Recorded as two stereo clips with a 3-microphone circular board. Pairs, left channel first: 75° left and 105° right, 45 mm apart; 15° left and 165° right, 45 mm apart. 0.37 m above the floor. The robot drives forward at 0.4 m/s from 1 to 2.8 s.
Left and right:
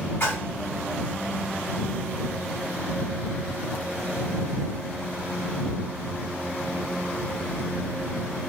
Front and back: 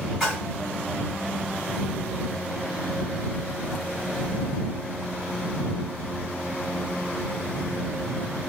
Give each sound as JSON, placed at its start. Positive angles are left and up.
{"t": 0.2, "sound": "a splash", "azimuth_deg": 105, "distance_m": 2.0}